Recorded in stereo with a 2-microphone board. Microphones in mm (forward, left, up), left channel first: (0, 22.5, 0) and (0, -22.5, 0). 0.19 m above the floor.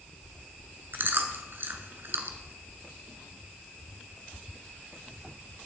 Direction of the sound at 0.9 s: 55° right (ahead or behind).